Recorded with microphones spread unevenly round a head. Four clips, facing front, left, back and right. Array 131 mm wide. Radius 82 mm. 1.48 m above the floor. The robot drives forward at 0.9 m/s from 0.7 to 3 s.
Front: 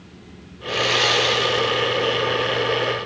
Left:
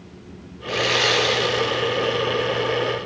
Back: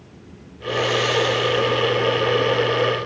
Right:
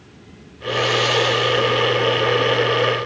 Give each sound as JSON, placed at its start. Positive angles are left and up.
{"t": 0.7, "sound": "sawing", "azimuth_deg": 60, "distance_m": 4.0}